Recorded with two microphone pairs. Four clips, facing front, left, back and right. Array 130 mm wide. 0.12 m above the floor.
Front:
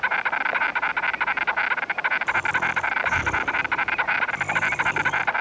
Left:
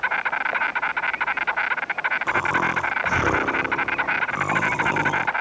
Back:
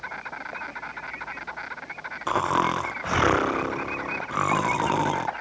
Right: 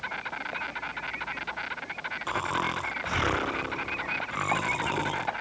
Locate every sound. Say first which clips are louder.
0.0 s an insect: left 11 dB, front 11 dB; 45° left
2.3 s snoring: left 5 dB, back 2 dB; 160° left